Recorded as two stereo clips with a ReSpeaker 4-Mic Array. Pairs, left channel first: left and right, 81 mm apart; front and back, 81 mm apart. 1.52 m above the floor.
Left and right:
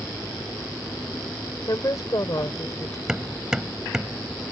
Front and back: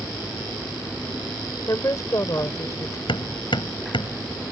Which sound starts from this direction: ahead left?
A woman speaking, at 1.7 s.